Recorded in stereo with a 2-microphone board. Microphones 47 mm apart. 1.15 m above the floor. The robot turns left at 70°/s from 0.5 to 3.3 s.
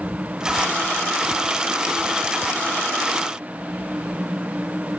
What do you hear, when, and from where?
Only background noise.